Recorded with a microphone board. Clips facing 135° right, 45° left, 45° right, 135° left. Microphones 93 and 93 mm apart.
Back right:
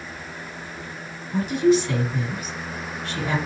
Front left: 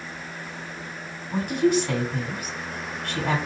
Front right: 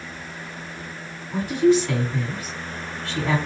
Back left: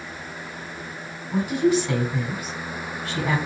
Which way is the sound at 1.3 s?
60° left.